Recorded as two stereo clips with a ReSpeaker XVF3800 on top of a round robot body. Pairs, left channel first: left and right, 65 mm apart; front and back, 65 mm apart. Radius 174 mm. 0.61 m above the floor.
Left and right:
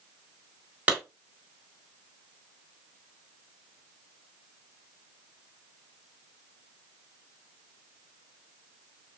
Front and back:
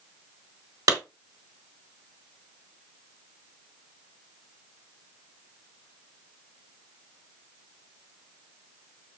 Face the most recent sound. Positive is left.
turn(degrees=-160)